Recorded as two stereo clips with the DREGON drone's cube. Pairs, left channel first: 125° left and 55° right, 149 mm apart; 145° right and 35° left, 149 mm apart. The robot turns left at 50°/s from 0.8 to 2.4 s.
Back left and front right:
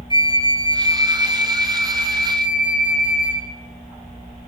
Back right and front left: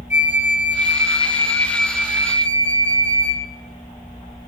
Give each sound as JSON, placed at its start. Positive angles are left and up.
{"t": 0.1, "sound": "a flute", "azimuth_deg": 180, "distance_m": 3.0}